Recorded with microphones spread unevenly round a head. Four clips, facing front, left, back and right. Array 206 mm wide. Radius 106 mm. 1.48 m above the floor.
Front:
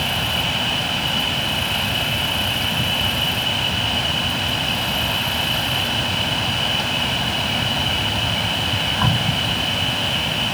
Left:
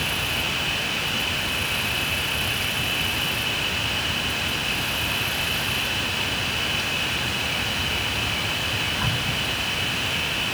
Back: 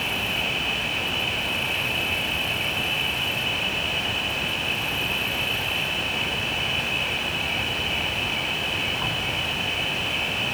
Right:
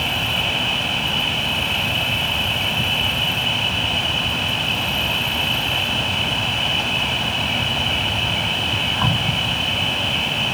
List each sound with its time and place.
0.0 s an insect: 35° right